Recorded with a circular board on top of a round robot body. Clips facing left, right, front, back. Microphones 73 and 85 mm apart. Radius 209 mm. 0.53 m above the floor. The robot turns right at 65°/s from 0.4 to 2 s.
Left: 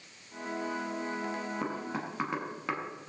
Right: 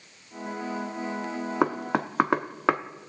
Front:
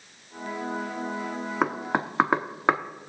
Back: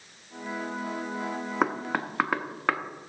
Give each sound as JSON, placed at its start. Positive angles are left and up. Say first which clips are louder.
{"t": 1.6, "sound": "knocking", "louder": "right 10 dB, front 2 dB", "azimuth_deg": -90, "distance_m": 1.0}